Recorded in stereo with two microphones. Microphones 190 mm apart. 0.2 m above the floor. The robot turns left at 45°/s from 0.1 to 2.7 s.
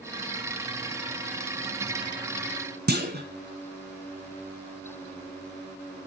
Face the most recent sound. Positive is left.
turn(degrees=-55)  # may be behind; listen again after turning